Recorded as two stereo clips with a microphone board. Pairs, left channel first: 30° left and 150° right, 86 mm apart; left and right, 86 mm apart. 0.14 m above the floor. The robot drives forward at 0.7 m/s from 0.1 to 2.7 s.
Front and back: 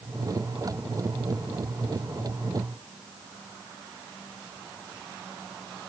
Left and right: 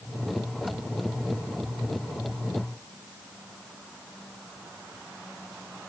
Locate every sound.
Only background noise.